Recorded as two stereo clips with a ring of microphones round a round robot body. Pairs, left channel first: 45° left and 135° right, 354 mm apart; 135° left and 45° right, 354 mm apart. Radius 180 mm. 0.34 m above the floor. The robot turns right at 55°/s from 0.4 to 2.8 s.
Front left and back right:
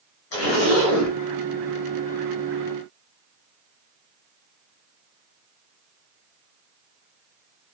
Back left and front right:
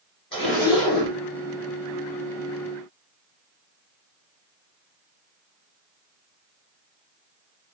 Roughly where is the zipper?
Ahead left.